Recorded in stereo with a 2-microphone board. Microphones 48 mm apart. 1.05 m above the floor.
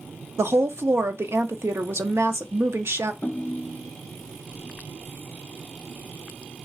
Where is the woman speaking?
65° right (ahead or behind), 0.6 m.